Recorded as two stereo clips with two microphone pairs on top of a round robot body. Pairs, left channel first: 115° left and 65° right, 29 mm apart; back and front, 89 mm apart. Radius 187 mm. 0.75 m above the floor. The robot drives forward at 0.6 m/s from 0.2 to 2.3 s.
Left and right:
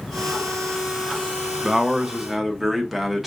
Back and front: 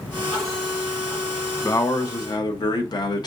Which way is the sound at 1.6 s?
130° right.